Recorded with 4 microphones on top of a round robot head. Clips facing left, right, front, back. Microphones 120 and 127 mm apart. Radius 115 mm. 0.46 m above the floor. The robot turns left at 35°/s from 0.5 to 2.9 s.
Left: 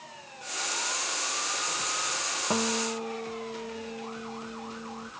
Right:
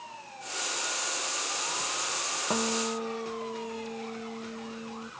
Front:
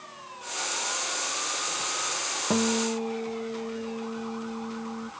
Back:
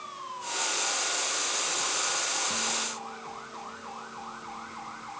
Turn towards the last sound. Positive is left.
turn(degrees=-10)